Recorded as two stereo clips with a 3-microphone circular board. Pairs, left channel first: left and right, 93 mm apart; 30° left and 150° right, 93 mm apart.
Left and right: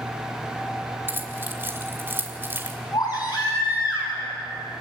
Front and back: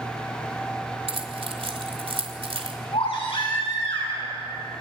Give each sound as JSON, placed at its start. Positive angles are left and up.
{"t": 1.1, "sound": "keys jangling", "azimuth_deg": -155, "distance_m": 2.5}
{"t": 2.9, "sound": "a baby crying", "azimuth_deg": 45, "distance_m": 7.0}